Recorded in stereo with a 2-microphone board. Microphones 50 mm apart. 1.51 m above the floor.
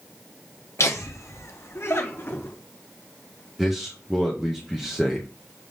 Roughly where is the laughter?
Left.